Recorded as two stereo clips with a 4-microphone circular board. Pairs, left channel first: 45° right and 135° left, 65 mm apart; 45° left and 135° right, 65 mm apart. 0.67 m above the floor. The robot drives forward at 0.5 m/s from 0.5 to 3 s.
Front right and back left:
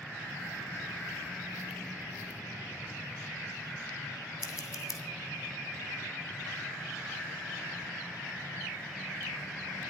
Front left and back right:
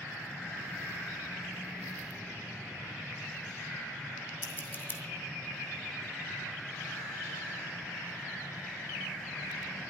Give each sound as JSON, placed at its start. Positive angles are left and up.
{"t": 4.4, "sound": "scissors", "azimuth_deg": -15, "distance_m": 2.5}